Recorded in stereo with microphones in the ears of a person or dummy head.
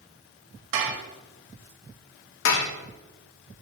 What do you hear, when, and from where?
0.7 s dishes clattering: 60° right (ahead or behind), 1.3 m
2.5 s dishes clattering: 70° left (ahead or behind), 0.9 m